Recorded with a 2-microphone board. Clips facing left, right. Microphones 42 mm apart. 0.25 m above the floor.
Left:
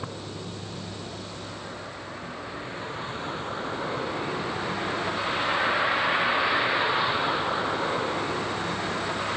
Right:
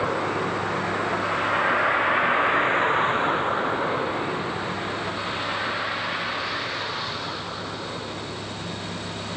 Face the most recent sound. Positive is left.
turn(degrees=35)  # may be behind; listen again after turning